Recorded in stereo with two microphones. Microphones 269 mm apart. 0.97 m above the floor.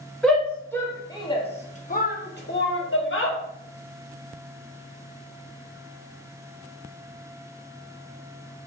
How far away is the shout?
About 1.3 m.